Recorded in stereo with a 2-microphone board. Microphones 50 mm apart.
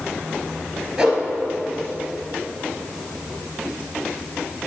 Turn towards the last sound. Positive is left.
turn(degrees=-10)  # may be behind; listen again after turning